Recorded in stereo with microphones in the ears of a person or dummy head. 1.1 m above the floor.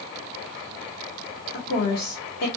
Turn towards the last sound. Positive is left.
turn(degrees=60)  # may be behind; listen again after turning